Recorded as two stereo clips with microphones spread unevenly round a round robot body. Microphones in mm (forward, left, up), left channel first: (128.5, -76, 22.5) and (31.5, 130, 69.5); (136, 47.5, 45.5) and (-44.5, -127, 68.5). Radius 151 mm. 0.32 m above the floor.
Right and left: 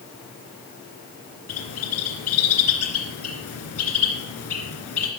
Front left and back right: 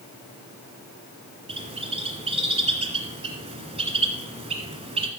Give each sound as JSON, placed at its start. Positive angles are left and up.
{"t": 1.5, "sound": "a bird", "azimuth_deg": -70, "distance_m": 2.5}